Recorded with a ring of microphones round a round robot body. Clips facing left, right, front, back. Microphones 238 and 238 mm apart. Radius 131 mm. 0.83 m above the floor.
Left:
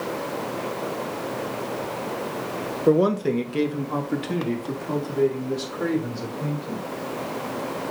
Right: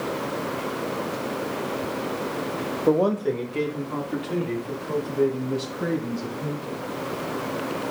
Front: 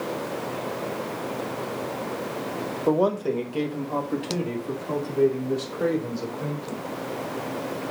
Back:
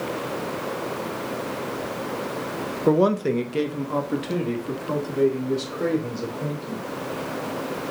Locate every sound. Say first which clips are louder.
2.9 s a man speaking: left 2 dB, back 3 dB; 160° left, 0.8 m; by 6.8 s 110° left, 4 m